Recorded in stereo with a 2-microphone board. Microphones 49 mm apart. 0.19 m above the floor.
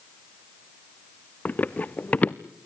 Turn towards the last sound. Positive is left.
turn(degrees=30)  # may be behind; listen again after turning